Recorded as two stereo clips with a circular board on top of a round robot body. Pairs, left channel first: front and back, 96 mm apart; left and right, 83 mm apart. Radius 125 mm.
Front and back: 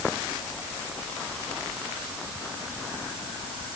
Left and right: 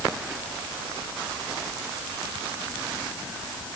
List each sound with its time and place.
Only background noise.